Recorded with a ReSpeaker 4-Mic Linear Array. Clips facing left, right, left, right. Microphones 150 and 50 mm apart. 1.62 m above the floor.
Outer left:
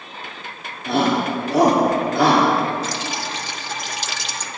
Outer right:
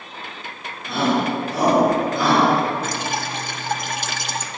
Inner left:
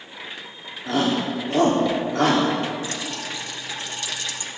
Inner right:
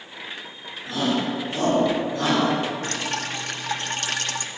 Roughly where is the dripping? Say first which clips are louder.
Outer right 1 dB, inner right 2 dB; right.